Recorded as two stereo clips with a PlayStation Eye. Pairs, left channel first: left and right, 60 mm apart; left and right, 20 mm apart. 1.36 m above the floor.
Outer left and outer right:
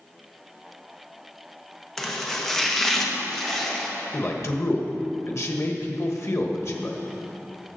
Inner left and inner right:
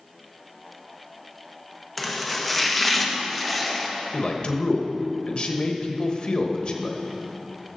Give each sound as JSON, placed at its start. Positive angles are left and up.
{"t": 2.0, "sound": "chopping", "side_deg": 5, "distance_m": 1.0}
{"t": 4.1, "sound": "a man speaking", "side_deg": 55, "distance_m": 1.1}